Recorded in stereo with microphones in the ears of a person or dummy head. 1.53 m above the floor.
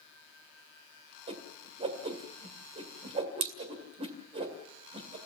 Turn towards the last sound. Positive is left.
turn(degrees=-30)  # may be behind; listen again after turning